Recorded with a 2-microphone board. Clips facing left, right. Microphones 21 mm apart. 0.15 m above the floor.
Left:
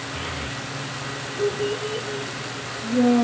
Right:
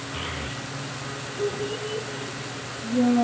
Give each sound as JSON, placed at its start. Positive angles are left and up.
{"t": 0.1, "sound": "a child speaking", "side_deg": -10, "distance_m": 1.4}